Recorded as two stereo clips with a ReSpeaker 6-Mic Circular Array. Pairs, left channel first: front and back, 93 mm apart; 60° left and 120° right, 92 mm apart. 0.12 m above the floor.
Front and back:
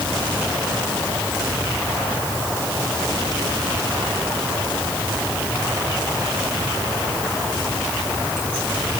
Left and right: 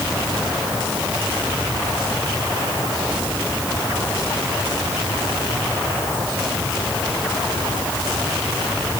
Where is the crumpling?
I don't hear crumpling.